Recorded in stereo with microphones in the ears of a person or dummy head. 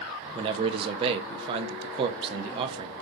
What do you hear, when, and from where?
0.3 s a man speaking: 30° right (ahead or behind), 0.5 m